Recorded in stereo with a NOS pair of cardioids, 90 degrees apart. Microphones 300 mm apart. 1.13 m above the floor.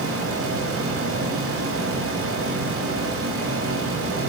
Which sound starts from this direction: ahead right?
A fan, at 0.0 s.